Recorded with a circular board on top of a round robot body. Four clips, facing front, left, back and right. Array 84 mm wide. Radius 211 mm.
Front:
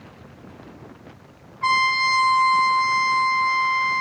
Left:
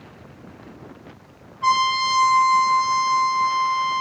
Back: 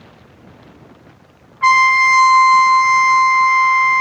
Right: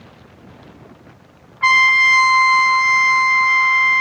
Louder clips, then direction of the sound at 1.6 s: Right 4 dB, back 9 dB; 135° right.